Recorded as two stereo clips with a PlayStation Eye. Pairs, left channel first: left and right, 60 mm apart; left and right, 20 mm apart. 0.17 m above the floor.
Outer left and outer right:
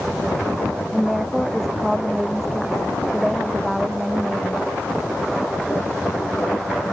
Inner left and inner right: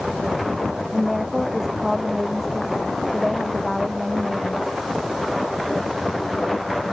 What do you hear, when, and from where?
0.9 s a woman speaking: centre (ahead or behind); by 4.8 s 5° right (ahead or behind)